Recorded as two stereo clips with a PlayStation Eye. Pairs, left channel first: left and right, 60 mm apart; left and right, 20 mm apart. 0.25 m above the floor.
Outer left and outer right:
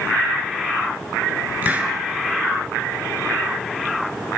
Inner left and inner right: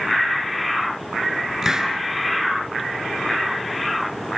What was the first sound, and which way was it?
A hiss, 30° right (ahead or behind).